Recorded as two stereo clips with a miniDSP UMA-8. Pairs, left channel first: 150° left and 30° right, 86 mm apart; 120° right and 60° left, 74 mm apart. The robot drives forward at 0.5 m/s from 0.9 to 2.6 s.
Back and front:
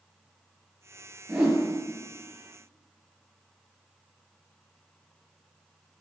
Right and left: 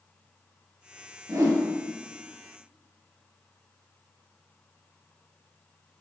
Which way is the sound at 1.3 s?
45° left.